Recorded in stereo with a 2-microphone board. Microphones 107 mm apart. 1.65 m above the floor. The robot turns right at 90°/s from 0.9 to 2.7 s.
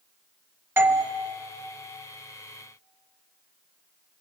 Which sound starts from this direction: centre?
A doorbell, at 0.8 s.